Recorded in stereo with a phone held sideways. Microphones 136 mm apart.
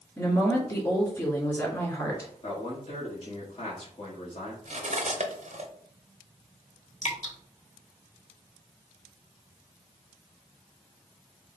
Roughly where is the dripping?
Left.